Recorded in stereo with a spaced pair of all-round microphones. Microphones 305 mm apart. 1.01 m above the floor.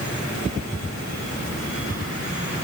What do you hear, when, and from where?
Only background noise.